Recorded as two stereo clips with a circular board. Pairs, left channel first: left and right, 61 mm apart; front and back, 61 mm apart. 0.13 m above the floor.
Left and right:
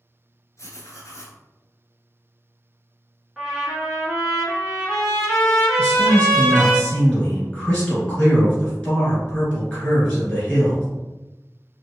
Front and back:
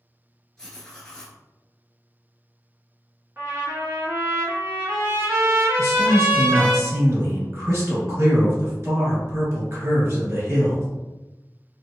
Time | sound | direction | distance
0.6 | writing | 80° left | 0.8 m
3.4 | a trumpet | 175° right | 1.4 m
5.8 | a man speaking | 160° left | 1.9 m